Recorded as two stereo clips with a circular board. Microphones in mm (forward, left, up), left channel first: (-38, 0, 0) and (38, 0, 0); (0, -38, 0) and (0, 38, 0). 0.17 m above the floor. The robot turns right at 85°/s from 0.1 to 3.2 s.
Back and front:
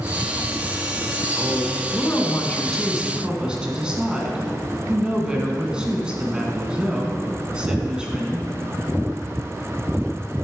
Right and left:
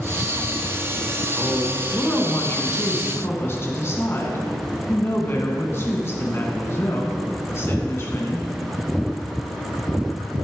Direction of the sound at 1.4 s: 135° left.